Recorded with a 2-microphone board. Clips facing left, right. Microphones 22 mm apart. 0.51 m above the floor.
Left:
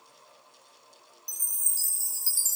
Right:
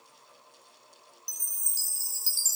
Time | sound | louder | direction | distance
1.3 | a chime | left 1 dB | 30° right (ahead or behind) | 0.9 m